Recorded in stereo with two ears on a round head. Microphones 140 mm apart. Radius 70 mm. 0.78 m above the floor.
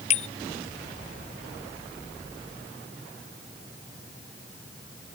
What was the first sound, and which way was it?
A bicycle bell, 45° left (ahead or behind).